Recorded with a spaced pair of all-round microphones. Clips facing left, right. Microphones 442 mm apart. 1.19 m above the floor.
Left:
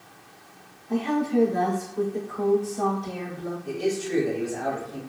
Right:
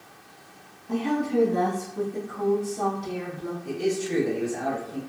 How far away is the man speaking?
About 1.5 m.